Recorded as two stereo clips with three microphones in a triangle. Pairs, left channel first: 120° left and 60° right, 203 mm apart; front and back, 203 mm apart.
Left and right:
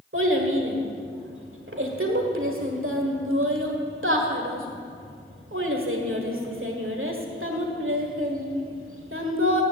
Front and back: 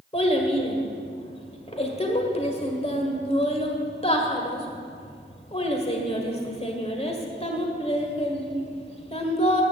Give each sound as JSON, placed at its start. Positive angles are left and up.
{"t": 0.1, "sound": "a child speaking", "azimuth_deg": -60, "distance_m": 1.6}